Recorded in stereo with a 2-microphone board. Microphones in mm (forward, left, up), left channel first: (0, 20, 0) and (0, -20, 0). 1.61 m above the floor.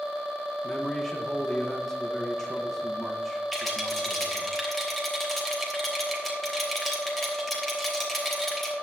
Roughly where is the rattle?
Centre.